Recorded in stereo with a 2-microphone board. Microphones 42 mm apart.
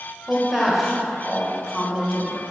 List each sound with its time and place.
0.3 s a woman speaking: 5° right (ahead or behind), 1.1 m